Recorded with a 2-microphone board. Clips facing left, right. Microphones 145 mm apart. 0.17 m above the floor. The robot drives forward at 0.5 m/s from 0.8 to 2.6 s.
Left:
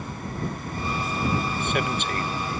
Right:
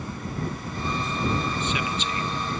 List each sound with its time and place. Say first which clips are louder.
1.6 s a man speaking: left 2 dB; 55° left (ahead or behind)